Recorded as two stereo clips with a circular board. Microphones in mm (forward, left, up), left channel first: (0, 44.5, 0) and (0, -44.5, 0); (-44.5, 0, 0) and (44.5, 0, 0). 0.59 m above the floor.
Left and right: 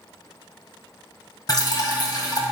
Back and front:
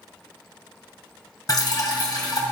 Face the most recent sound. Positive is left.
turn(degrees=135)